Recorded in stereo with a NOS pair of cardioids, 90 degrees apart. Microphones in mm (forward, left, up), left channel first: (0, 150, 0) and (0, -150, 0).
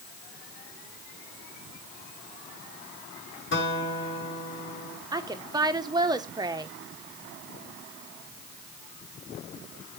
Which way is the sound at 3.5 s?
40° left.